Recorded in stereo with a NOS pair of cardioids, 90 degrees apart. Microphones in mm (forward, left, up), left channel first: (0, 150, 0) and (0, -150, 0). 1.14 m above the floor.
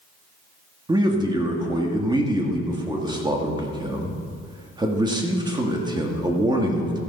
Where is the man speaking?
15° right, 1.6 m.